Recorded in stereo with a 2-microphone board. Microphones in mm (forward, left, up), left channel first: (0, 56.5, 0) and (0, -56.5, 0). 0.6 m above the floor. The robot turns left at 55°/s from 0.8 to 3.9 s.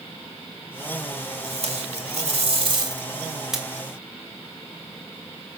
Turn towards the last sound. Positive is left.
turn(degrees=165)